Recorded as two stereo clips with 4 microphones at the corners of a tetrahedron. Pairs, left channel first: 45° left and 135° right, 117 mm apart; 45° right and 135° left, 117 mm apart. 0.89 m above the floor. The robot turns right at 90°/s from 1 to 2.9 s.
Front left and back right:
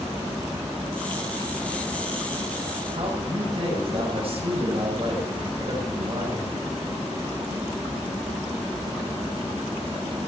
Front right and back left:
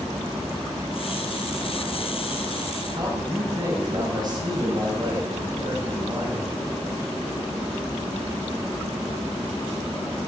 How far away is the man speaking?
About 6 m.